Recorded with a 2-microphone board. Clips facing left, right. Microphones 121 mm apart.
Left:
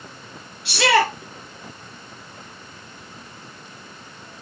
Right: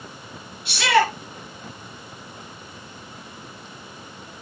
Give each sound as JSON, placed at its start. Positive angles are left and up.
{"t": 0.7, "sound": "a shout", "side_deg": 70, "distance_m": 7.0}